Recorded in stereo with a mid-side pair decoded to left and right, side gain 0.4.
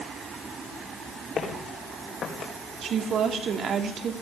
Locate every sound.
1.4 s footsteps: 55° left, 4.5 m; by 2.5 s 60° left, 4.5 m
2.8 s a woman speaking: 65° right, 2.5 m